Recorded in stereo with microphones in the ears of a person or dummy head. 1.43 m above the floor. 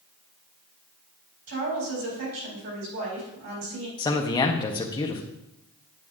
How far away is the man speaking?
About 0.8 m.